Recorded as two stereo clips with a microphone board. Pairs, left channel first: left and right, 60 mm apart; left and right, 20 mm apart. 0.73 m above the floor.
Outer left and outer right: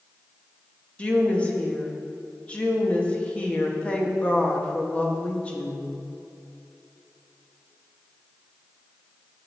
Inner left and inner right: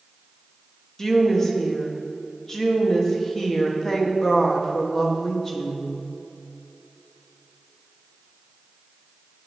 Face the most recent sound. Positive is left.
turn(degrees=20)  # may be behind; listen again after turning